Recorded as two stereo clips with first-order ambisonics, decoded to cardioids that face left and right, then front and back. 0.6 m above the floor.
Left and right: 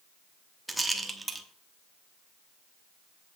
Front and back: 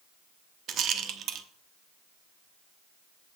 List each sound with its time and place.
0.7 s a rattle: 170° right, 0.8 m